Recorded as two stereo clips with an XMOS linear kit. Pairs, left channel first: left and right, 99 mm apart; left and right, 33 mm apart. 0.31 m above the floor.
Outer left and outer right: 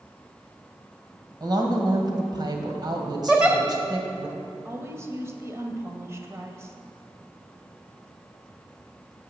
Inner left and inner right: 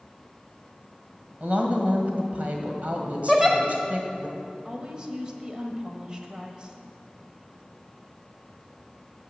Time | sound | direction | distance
1.4 | a woman speaking | 45° right (ahead or behind) | 1.7 m
3.3 | a giggle | 15° right (ahead or behind) | 1.6 m
4.7 | a woman speaking | 30° right (ahead or behind) | 1.2 m